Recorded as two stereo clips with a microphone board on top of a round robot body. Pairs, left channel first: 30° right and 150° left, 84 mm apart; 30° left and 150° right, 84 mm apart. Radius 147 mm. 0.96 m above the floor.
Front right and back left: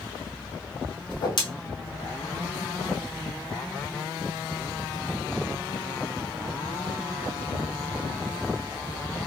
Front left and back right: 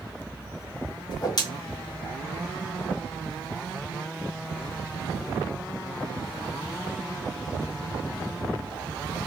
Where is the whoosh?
5° right, 1.3 m.